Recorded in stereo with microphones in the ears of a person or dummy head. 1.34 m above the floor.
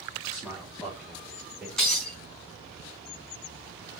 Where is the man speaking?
10° right (ahead or behind), 2.5 m; by 1.7 s 5° right (ahead or behind), 4 m.